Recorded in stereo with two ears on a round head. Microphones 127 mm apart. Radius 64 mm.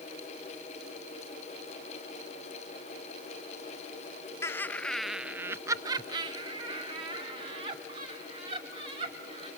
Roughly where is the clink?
I don't hear a clink.